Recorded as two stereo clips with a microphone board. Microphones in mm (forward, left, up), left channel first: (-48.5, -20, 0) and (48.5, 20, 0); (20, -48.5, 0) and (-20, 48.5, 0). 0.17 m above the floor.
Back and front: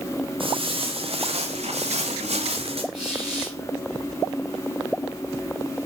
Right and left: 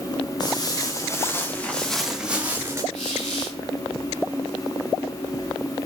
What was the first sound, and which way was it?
Footsteps, 15° right.